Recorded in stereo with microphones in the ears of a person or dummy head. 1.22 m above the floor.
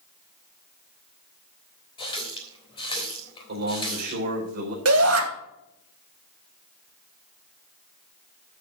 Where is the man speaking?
55° right (ahead or behind), 4 m.